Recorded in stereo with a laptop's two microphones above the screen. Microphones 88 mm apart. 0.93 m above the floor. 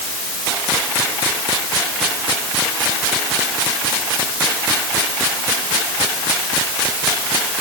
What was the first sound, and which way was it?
Only background noise.